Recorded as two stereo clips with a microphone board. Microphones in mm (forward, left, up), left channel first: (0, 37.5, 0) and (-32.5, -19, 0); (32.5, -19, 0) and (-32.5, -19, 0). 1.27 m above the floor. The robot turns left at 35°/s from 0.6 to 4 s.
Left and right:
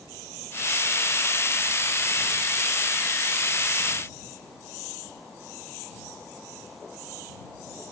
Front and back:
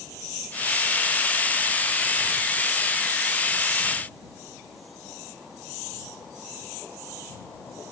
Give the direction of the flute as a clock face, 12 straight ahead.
No flute in this recording.